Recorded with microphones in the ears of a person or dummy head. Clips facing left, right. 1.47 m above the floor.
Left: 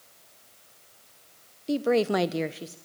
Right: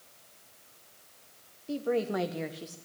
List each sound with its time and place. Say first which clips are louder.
1.7 s a woman speaking: left 6 dB; 65° left (ahead or behind), 0.8 m; by 2.8 s 20° left (ahead or behind), 0.7 m